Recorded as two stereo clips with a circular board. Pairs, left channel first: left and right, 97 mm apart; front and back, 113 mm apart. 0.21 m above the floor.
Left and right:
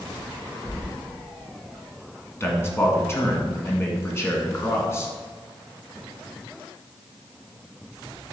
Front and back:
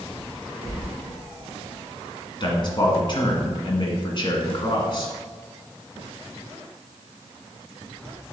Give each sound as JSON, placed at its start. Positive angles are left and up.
{"t": 0.7, "sound": "keys jangling", "azimuth_deg": 20, "distance_m": 3.0}
{"t": 2.4, "sound": "a man speaking", "azimuth_deg": 35, "distance_m": 1.7}